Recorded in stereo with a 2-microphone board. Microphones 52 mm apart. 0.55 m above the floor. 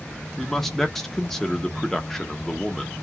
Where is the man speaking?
5° left (ahead or behind), 0.8 m.